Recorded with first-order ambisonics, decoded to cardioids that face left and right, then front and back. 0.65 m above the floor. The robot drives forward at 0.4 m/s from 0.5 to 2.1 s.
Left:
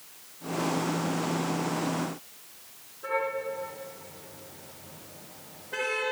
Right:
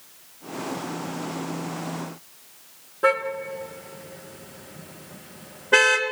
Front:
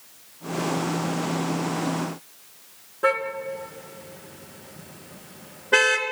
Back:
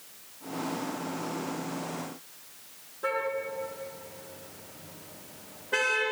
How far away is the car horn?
About 3.5 m.